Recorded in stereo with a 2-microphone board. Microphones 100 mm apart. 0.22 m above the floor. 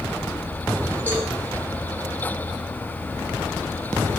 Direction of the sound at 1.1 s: 20° left (ahead or behind).